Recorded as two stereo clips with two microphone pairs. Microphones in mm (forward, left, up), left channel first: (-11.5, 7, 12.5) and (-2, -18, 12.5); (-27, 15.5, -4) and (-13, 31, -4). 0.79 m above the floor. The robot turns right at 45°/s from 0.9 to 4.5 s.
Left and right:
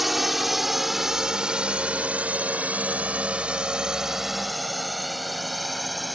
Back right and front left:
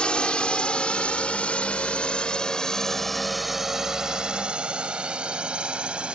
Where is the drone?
155° right; by 6.2 s 15° left.